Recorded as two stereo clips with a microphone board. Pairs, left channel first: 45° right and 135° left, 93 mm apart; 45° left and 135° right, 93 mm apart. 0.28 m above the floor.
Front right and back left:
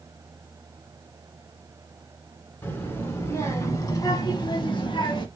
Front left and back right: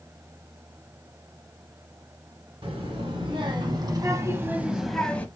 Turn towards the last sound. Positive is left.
turn(degrees=-25)